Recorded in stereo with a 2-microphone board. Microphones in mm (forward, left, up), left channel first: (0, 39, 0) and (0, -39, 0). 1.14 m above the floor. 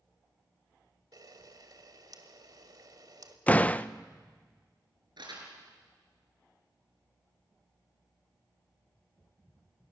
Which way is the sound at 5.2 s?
70° right (ahead or behind).